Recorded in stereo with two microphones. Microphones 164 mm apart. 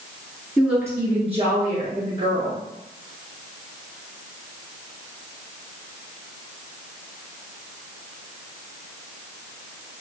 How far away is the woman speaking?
About 1.4 m.